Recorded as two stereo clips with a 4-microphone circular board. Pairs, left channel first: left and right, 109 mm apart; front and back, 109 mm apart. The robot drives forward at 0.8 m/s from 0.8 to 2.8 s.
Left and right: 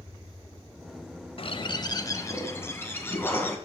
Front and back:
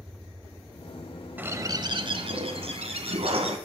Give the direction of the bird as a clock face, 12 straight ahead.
8 o'clock.